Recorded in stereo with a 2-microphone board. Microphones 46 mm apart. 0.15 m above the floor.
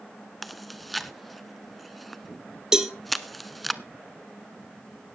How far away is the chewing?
About 0.8 m.